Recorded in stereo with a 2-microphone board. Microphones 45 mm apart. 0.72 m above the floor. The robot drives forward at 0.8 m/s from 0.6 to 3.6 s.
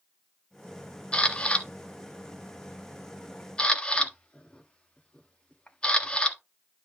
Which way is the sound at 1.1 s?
20° left (ahead or behind).